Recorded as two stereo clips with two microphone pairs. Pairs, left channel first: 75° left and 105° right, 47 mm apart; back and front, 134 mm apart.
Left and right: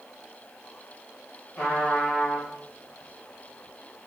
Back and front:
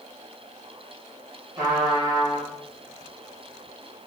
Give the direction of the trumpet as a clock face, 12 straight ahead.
10 o'clock.